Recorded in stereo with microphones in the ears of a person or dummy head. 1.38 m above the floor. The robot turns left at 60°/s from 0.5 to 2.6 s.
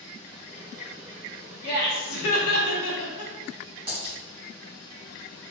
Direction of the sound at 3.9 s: 30° right (ahead or behind).